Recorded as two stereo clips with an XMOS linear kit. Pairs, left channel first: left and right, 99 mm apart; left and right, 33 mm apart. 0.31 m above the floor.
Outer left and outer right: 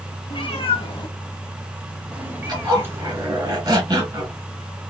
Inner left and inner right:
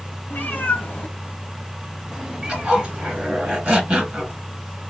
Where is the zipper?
40° right (ahead or behind), 1.7 m.